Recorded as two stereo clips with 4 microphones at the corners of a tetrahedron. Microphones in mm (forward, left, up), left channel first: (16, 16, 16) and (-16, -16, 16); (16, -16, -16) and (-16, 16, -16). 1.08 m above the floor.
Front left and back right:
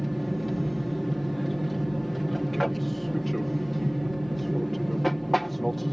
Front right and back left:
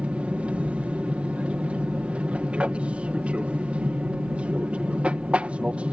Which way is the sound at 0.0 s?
130° left.